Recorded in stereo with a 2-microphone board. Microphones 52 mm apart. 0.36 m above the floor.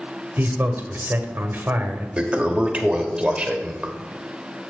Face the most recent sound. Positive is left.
turn(degrees=-20)  # may be behind; listen again after turning